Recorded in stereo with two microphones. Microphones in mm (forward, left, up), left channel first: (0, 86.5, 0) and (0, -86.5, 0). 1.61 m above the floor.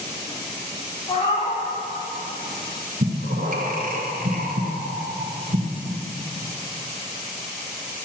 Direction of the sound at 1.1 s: 30° left (ahead or behind).